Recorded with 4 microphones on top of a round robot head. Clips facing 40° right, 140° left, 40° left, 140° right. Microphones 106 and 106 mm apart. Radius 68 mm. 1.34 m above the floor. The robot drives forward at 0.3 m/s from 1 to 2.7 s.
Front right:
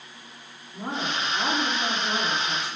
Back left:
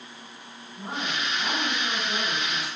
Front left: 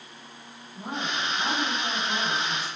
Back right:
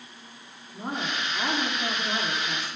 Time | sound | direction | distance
0.7 | a woman speaking | 95° right | 3.5 m